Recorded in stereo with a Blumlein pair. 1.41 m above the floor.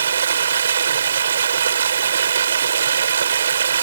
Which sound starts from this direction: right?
Running water, at 0.0 s.